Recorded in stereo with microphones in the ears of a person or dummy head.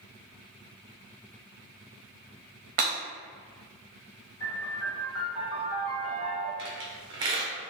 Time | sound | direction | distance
2.8 | breaking glass | 25° right (ahead or behind) | 0.9 m
4.4 | a piano | 25° left (ahead or behind) | 1.8 m
6.6 | a squeak | 25° right (ahead or behind) | 0.5 m